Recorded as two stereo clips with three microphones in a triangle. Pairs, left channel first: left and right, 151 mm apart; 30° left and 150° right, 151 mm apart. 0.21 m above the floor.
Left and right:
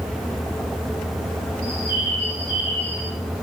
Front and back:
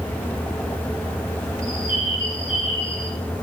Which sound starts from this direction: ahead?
A bird, at 1.6 s.